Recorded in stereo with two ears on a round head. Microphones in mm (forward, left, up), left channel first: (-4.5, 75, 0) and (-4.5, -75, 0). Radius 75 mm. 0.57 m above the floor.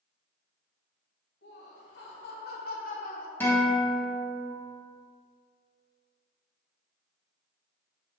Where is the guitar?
10° left (ahead or behind), 1.8 m.